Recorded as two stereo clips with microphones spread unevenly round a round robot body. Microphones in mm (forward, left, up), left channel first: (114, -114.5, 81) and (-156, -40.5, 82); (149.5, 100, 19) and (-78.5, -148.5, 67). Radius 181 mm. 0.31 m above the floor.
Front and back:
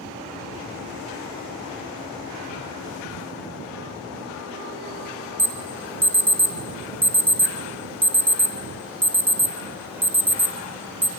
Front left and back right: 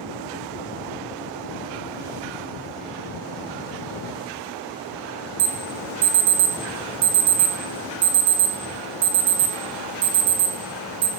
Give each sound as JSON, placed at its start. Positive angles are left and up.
{"t": 5.4, "sound": "an alarm", "azimuth_deg": -115, "distance_m": 0.8}